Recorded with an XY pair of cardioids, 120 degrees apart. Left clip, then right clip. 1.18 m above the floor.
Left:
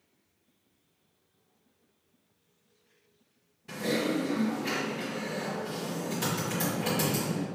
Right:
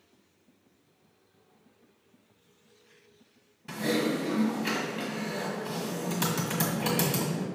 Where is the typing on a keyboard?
40° right, 1.3 m.